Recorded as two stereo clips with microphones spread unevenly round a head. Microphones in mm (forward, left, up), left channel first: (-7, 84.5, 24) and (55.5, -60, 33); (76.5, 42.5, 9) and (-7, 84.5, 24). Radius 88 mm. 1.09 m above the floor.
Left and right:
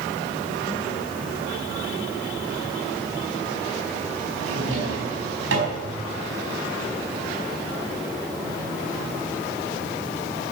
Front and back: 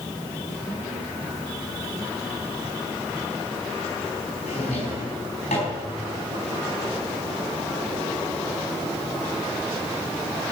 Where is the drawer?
70° right, 4.5 m.